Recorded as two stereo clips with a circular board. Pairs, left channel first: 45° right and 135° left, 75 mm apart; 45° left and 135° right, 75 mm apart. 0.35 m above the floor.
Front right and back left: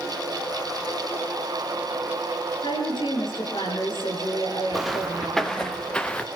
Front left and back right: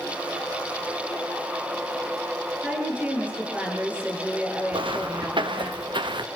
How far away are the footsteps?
About 2.5 m.